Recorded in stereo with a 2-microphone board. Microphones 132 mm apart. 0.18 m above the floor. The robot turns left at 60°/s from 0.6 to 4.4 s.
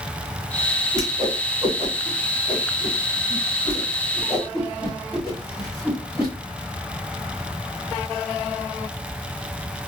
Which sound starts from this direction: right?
A whoosh, at 0.9 s.